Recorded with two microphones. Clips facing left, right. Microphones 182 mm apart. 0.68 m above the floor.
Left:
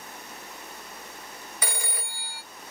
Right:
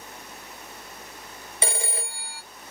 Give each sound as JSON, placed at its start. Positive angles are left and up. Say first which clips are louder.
{"t": 1.6, "sound": "a phone ringing", "louder": "right 6 dB", "side_deg": -25, "distance_m": 0.5}